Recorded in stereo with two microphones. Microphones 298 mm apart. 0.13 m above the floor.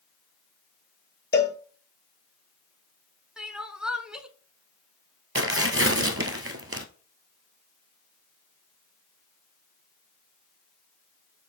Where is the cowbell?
35° left (ahead or behind), 1.0 m.